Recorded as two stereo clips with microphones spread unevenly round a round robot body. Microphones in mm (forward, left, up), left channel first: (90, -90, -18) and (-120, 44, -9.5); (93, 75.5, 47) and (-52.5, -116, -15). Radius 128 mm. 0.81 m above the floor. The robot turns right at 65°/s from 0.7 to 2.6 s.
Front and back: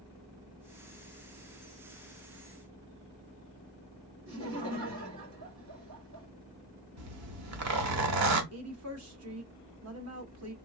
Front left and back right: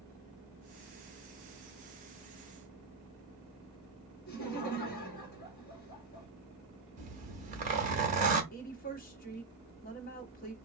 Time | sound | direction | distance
4.3 | laughter | 110° left | 2 m
7.0 | a zipper | 170° left | 1.4 m
8.5 | a woman speaking | 115° left | 1.6 m